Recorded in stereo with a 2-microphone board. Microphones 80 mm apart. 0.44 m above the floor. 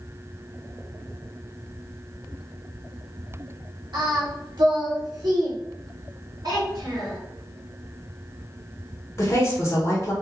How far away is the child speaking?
About 1.9 m.